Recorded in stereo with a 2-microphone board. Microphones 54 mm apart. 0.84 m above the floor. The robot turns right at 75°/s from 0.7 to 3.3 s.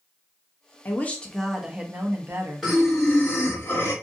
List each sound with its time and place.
0.8 s a woman speaking: 135° left, 0.7 m; by 2.7 s 90° right, 0.7 m
2.6 s breathing: 10° right, 1.4 m; by 3.9 s 45° left, 1.4 m